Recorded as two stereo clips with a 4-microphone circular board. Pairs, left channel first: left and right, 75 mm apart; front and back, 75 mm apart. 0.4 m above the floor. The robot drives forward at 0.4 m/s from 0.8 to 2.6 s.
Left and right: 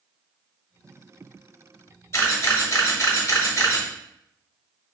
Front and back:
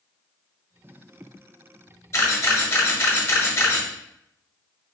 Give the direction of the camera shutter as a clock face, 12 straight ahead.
11 o'clock.